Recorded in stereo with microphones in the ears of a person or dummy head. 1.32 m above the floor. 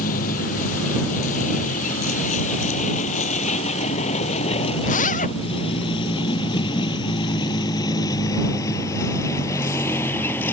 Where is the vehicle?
50° left (ahead or behind); by 10.5 s 10° left (ahead or behind).